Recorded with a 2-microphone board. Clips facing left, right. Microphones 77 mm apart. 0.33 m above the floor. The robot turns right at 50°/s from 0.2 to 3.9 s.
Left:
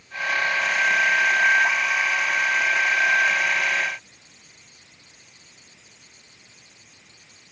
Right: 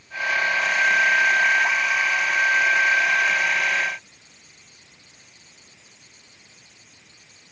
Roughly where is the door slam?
I don't hear a door slam.